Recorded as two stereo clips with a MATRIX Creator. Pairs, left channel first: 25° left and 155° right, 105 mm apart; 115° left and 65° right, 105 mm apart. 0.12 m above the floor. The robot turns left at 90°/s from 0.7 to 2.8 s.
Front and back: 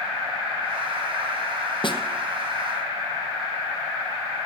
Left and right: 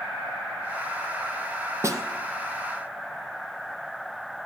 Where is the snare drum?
5° right, 0.9 m; by 2.0 s 25° right, 0.9 m.